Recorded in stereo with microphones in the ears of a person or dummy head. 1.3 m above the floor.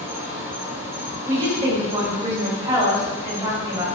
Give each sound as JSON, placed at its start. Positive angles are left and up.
{"t": 0.0, "sound": "an insect", "side_deg": -15, "distance_m": 1.3}
{"t": 1.3, "sound": "a woman speaking", "side_deg": -15, "distance_m": 2.5}